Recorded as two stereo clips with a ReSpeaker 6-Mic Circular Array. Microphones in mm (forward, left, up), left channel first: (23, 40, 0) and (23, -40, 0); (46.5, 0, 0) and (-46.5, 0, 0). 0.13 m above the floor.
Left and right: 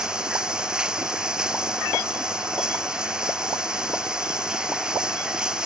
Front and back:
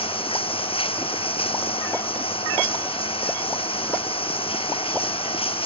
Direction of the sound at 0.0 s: 10° right.